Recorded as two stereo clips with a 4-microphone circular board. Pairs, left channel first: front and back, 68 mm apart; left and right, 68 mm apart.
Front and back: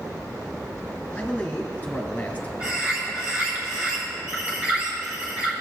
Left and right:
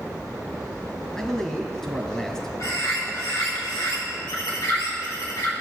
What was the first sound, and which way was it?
A man speaking, 25° left.